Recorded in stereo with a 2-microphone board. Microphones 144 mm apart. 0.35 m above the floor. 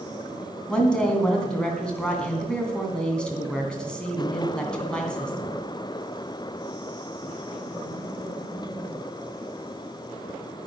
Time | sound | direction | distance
0.7 | a woman speaking | 5° left (ahead or behind) | 2.5 m